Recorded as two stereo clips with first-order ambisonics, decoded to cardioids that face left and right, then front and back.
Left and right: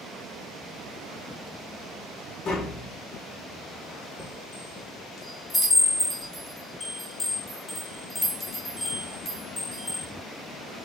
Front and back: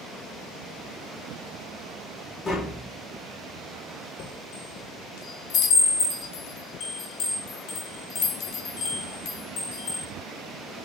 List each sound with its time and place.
2.5 s tapping: 60° left, 1.2 m
4.2 s a chime: 15° left, 1.1 m